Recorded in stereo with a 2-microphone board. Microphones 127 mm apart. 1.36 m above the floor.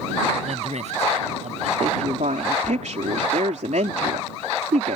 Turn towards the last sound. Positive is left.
turn(degrees=-75)  # may be behind; listen again after turning